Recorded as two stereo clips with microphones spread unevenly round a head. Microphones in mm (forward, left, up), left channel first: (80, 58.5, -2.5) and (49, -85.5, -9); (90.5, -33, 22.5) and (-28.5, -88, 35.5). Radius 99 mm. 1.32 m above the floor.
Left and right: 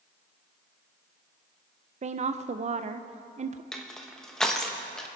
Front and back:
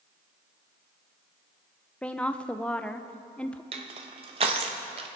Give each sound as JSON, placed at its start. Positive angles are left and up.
{"t": 2.0, "sound": "a woman speaking", "azimuth_deg": -60, "distance_m": 0.6}
{"t": 3.7, "sound": "crushing", "azimuth_deg": 160, "distance_m": 0.6}